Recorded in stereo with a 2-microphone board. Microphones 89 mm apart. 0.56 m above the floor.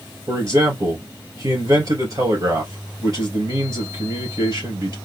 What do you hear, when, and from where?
0.3 s a man speaking: 45° right (ahead or behind), 3 m